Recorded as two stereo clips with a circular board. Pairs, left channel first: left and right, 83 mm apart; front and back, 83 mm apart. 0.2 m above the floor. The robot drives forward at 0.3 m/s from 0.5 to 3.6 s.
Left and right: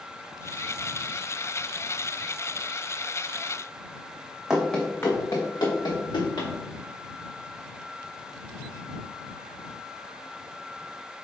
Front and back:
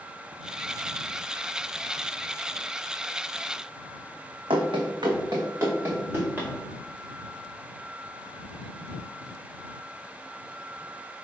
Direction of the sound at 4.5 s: 170° right.